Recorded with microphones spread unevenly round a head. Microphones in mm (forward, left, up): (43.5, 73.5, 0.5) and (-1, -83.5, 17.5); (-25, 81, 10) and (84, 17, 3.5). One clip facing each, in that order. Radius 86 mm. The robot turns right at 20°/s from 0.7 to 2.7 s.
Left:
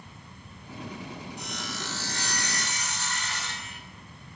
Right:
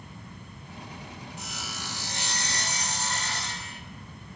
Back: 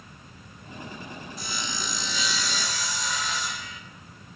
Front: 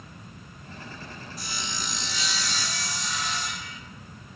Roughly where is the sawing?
Behind.